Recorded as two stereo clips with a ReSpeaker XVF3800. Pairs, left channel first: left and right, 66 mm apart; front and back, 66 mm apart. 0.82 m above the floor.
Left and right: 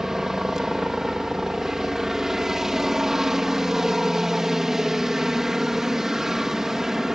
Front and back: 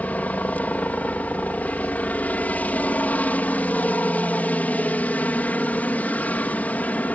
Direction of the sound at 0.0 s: 15° right.